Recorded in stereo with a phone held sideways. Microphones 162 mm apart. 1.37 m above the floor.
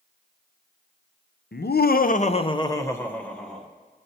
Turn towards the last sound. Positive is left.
turn(degrees=5)  # may be behind; listen again after turning